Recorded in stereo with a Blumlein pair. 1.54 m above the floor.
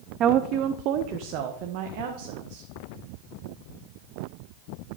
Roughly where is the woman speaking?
Ahead right.